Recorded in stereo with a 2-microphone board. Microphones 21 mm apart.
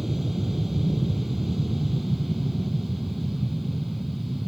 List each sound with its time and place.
0.0 s an aircraft: 20° right (ahead or behind); by 4.5 s 5° right (ahead or behind)